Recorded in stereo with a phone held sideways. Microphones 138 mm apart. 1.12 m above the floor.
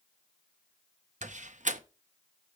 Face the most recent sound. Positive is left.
turn(degrees=-65)  # may be behind; listen again after turning